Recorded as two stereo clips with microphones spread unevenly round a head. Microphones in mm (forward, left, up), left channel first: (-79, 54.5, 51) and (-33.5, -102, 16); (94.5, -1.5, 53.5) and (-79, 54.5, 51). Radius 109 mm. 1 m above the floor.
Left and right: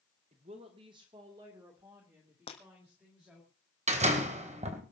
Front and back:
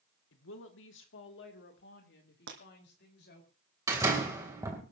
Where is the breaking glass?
150° left, 2.5 m.